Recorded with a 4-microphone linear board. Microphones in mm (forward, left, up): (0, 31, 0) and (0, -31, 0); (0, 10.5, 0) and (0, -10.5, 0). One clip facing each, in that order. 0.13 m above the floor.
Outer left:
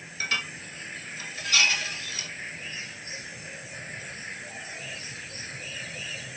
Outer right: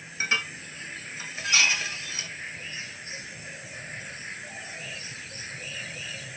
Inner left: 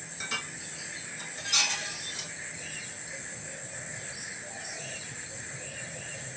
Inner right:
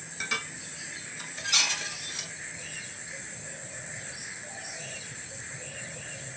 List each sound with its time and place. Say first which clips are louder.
0.2 s dishes clattering: outer right 2 dB, inner right 3 dB; 20° right (ahead or behind), 1.3 m